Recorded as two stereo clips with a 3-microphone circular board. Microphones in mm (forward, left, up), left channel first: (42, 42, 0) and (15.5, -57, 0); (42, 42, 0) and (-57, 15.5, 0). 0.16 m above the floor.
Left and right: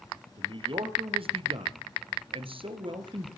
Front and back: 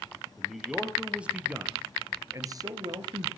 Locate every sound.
0.4 s a man speaking: 75° right, 3.5 m; by 3.3 s 135° right, 2.5 m